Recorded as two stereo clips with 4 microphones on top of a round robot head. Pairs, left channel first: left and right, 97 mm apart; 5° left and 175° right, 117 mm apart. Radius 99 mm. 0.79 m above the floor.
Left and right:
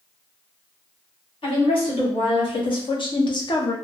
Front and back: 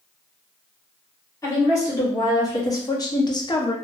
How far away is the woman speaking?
About 1.8 m.